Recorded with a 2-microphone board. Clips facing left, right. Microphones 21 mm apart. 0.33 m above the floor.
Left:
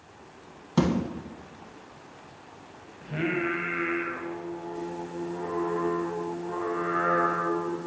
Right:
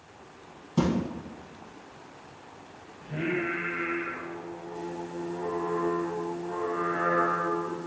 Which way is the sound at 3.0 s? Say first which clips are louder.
Left 2 dB; 45° left (ahead or behind).